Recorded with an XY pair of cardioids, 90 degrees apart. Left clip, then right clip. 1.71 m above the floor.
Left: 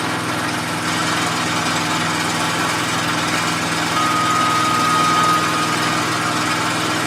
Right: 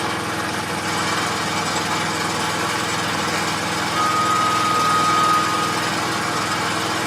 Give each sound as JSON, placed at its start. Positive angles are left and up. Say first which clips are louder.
{"t": 0.0, "sound": "an engine running", "louder": "left 2 dB", "azimuth_deg": 70, "distance_m": 2.5}
{"t": 3.9, "sound": "a flute", "louder": "left 1 dB", "azimuth_deg": 60, "distance_m": 2.5}